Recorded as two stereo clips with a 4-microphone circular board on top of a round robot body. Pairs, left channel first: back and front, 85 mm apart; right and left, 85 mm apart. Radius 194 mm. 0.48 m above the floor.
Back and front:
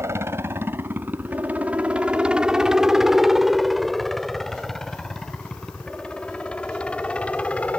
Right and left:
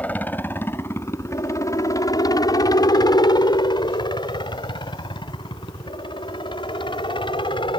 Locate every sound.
0.0 s a helicopter: 30° right; by 7.8 s 105° right